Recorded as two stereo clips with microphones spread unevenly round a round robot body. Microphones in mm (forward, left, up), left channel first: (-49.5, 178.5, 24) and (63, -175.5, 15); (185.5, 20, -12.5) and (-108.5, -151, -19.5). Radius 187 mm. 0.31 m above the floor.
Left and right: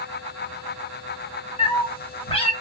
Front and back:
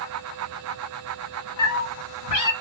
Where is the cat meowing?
35° left, 0.7 m.